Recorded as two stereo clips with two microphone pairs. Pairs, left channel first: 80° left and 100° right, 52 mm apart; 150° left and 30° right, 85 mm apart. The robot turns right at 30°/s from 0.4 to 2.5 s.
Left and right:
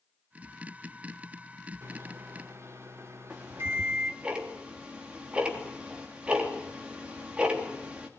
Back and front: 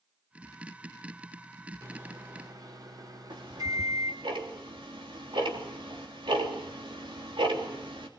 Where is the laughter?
No laughter in this recording.